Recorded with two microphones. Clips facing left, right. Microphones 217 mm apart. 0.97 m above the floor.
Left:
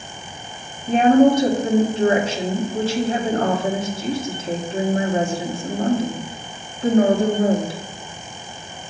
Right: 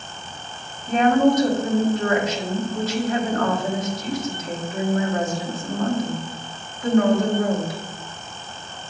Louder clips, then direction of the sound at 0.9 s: Left 4 dB; 30° left (ahead or behind).